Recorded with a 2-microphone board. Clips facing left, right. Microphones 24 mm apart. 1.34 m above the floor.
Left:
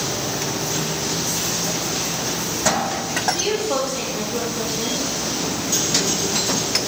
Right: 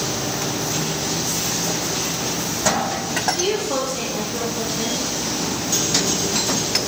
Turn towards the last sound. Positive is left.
turn(degrees=-10)  # may be behind; listen again after turning